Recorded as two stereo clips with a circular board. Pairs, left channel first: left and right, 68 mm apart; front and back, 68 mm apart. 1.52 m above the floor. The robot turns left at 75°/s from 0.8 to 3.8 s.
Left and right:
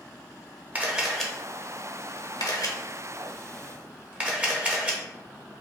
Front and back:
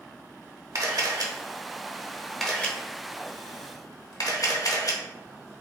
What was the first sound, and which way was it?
A camera shutter, 155° right.